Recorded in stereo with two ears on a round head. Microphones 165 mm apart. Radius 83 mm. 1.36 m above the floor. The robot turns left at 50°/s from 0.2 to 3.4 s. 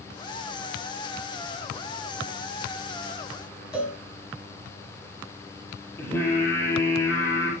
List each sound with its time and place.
3.7 s a cowbell: 5° right (ahead or behind), 9 m
6.0 s singing: 15° left (ahead or behind), 7 m